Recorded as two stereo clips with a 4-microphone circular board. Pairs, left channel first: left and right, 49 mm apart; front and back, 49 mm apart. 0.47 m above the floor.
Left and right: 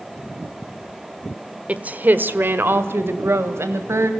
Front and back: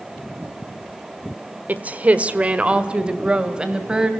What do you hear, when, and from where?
1.7 s a woman speaking: 140° right, 1.3 m; by 4.1 s 105° right, 3 m